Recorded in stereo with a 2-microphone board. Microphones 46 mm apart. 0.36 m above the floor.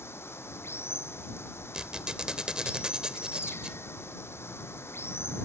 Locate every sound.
0.0 s running water: 65° left (ahead or behind)
1.7 s a squeak: 20° right (ahead or behind)